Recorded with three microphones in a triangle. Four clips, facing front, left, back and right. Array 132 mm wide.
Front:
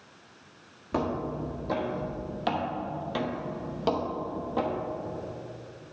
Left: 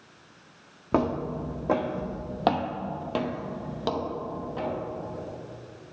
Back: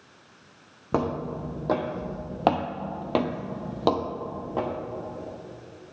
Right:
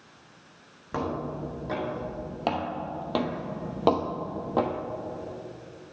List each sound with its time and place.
0.9 s footsteps: 130° left, 1.5 m; by 4.7 s 105° right, 1.1 m